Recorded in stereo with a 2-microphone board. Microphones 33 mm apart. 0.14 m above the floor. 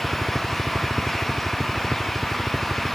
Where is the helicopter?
10° left (ahead or behind).